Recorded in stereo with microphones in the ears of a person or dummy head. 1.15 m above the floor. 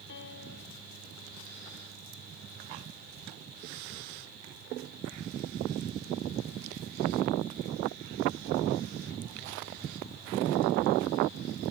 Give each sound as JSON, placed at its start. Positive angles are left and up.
{"t": 0.1, "sound": "a piano", "side_deg": 70}